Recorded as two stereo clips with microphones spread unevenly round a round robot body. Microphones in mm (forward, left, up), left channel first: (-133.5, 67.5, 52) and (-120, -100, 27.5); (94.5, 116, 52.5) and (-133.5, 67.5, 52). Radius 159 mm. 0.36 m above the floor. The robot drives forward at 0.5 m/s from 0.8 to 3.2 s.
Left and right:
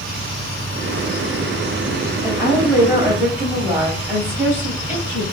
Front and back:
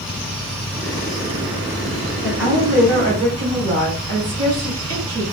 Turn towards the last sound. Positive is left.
turn(degrees=-160)